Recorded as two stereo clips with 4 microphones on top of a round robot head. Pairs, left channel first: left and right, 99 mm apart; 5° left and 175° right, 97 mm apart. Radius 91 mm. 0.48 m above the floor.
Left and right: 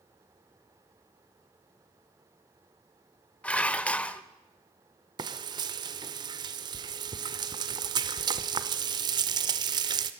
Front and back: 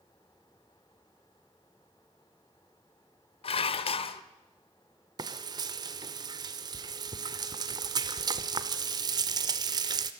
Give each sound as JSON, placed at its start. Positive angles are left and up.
{"t": 3.4, "sound": "dishes clattering", "azimuth_deg": 15, "distance_m": 1.1}
{"t": 5.2, "sound": "frying", "azimuth_deg": -130, "distance_m": 0.9}